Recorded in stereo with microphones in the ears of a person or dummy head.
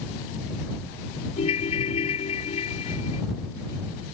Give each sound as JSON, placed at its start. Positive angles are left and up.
{"t": 1.4, "sound": "a ringtone", "side_deg": 35}